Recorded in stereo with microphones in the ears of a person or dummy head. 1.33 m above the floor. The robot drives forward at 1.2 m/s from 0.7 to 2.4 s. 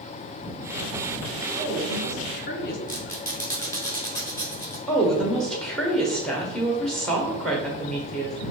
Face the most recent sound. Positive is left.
turn(degrees=0)  # may be behind; listen again after turning